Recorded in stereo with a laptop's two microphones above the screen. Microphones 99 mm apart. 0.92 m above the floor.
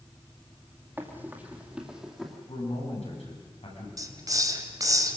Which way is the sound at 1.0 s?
20° right (ahead or behind).